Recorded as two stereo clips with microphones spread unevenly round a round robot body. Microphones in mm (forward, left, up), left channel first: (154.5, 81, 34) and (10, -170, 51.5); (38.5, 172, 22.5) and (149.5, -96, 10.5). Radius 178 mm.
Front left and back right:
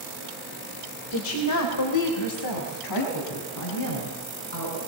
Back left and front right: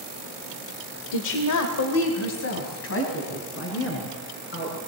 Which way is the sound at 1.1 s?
110° left.